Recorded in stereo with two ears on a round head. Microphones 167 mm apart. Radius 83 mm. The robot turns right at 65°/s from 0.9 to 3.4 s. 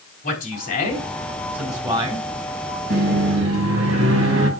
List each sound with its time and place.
0.2 s a man speaking: 130° left, 4 m; by 2.3 s 140° right, 4 m
2.9 s a microwave: 130° right, 3.5 m; by 4.5 s 95° right, 3.5 m